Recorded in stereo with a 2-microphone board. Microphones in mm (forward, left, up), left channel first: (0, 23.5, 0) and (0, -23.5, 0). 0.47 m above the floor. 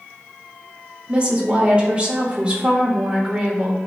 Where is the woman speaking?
25° right (ahead or behind), 1.2 m.